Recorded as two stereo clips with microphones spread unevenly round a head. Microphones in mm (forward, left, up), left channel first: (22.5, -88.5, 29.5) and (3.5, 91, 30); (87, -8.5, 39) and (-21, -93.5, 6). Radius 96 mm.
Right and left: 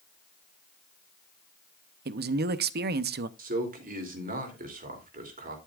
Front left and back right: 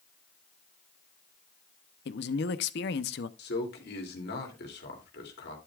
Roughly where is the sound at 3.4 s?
Ahead left.